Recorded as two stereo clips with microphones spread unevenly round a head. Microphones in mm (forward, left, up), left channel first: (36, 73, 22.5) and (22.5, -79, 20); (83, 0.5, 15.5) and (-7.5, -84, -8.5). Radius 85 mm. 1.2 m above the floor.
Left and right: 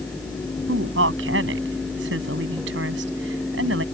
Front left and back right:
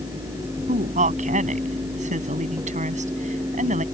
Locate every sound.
0.7 s a woman speaking: 115° right